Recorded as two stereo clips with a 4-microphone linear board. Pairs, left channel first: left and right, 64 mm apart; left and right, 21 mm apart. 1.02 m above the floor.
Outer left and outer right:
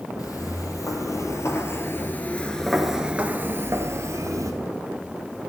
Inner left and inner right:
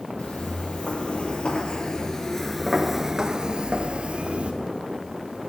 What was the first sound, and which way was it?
Footsteps, 65° left (ahead or behind).